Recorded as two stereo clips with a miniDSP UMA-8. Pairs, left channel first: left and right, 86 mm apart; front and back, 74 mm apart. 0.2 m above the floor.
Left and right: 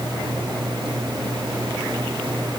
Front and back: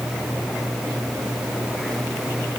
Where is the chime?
I don't hear a chime.